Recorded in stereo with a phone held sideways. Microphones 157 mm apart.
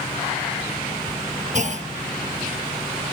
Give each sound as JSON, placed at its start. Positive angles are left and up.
{"t": 1.5, "sound": "a clunk", "side_deg": -50}